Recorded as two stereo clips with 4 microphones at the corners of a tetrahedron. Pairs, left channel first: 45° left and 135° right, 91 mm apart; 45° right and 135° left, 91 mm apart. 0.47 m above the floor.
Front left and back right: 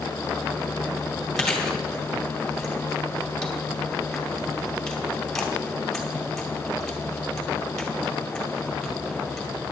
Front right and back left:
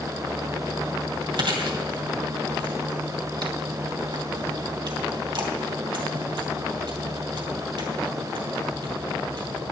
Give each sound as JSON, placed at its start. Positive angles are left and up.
{"t": 1.4, "sound": "chewing", "azimuth_deg": 130, "distance_m": 2.5}